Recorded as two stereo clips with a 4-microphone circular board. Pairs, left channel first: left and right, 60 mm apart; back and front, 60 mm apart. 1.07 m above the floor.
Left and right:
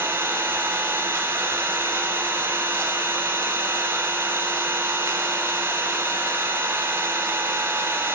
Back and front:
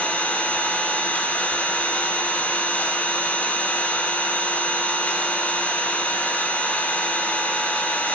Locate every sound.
0.0 s an engine running: 120° right, 2.5 m